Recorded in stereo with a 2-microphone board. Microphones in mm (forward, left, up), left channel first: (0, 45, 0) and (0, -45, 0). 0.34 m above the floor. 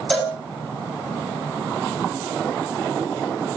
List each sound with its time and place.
0.1 s a cowbell: centre (ahead or behind), 3.5 m